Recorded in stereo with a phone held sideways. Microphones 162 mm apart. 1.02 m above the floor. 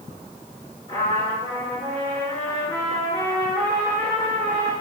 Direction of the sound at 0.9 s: 35° left (ahead or behind).